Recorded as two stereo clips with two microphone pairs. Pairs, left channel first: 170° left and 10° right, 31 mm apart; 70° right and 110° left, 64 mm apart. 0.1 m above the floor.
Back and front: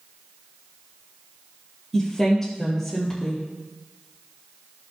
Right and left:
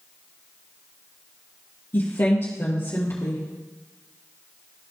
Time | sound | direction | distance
1.9 | a woman speaking | 110° right | 2.5 m